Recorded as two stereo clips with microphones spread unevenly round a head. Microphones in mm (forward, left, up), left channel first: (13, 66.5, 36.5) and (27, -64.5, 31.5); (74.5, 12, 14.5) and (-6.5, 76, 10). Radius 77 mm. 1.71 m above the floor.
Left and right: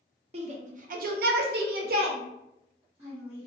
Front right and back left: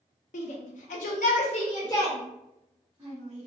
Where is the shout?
40° right, 0.8 m; by 3.5 s 145° right, 1.2 m.